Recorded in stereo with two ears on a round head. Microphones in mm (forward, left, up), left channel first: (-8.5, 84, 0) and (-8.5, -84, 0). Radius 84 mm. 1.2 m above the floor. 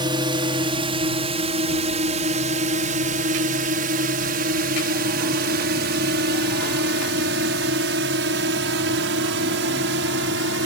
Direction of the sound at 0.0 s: 25° right (ahead or behind).